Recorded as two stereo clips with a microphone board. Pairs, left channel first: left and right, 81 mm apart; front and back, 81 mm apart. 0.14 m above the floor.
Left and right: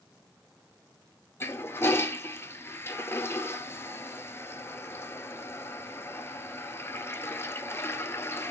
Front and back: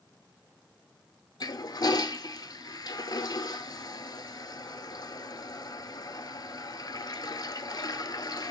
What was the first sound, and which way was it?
A toilet flushing, 30° left.